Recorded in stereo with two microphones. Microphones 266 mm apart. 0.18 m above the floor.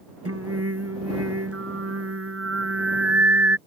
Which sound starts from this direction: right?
Singing, at 0.2 s.